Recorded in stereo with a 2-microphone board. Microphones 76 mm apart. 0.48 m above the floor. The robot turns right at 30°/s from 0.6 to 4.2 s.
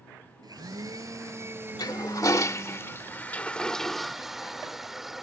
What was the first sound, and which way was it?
A blender, 60° right.